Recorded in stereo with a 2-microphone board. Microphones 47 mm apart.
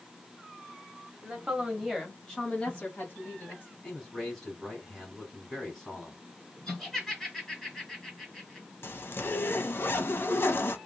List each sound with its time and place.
1.2 s a woman speaking: 25° right (ahead or behind), 1.5 m; by 3.7 s 45° left (ahead or behind), 2 m
3.8 s a man speaking: 10° left (ahead or behind), 2 m
6.7 s laughter: 10° left (ahead or behind), 2.5 m
8.8 s a zipper: 55° left (ahead or behind), 0.6 m